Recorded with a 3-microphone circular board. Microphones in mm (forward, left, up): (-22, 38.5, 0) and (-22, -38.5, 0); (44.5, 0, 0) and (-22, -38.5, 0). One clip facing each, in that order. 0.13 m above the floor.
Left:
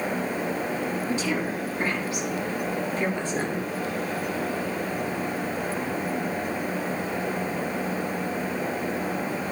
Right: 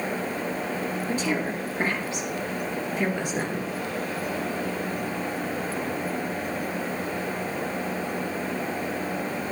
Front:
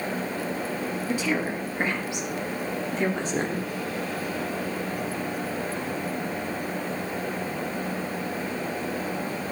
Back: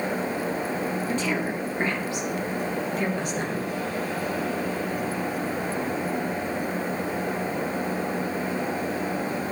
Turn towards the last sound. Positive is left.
turn(degrees=-10)